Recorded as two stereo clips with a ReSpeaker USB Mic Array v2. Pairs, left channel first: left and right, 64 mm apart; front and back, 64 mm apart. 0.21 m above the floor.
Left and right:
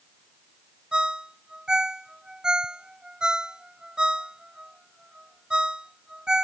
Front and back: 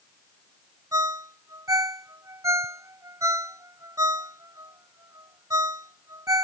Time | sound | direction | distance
0.9 | a ringtone | 165° right | ?